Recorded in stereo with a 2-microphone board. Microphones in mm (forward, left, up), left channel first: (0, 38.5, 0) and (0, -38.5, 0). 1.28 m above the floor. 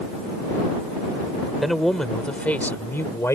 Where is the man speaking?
Centre (ahead or behind); by 3.4 s 40° left (ahead or behind).